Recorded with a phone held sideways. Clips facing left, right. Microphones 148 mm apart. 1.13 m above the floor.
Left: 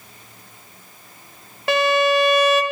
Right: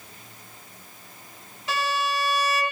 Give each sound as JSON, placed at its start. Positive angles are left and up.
{"t": 1.7, "sound": "a violin", "side_deg": 65, "distance_m": 0.9}